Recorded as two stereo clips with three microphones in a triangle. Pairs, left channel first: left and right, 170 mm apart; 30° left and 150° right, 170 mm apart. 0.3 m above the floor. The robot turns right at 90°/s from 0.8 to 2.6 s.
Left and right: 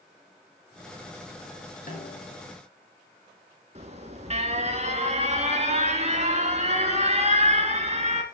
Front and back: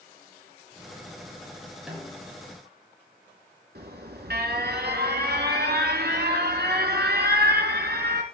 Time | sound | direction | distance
1.9 | a snare drum | 125° left | 5 m
3.8 | an alarm | 140° right | 3 m